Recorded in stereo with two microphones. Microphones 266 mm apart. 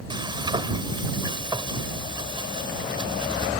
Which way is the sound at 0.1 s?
15° right (ahead or behind).